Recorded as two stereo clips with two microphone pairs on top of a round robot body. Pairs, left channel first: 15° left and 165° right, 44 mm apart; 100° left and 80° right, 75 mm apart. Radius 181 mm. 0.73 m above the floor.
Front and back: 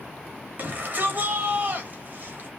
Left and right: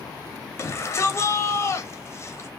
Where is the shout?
150° left, 1.7 m.